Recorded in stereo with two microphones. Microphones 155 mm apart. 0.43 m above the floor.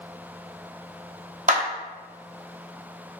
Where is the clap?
55° right (ahead or behind), 1.0 m.